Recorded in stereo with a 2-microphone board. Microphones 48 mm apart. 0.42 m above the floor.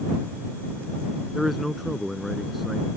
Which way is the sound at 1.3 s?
Centre (ahead or behind).